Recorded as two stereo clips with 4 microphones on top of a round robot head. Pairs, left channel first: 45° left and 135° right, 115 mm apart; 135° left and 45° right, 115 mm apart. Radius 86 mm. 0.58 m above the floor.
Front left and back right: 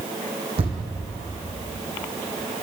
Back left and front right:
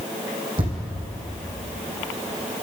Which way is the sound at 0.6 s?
90° right.